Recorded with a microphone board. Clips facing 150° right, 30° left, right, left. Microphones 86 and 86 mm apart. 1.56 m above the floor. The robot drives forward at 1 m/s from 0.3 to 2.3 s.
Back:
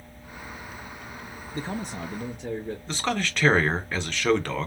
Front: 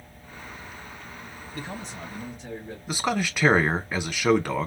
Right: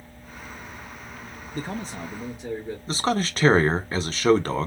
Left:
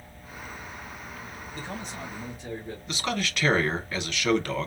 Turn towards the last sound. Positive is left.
turn(degrees=-50)